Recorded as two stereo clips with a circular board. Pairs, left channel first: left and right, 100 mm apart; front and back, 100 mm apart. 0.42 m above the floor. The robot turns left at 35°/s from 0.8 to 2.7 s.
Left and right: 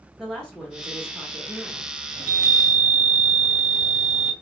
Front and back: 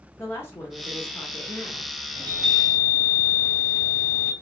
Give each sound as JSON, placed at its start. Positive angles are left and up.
{"t": 0.2, "sound": "a woman speaking", "azimuth_deg": 15, "distance_m": 0.9}
{"t": 2.2, "sound": "a chime", "azimuth_deg": -25, "distance_m": 1.7}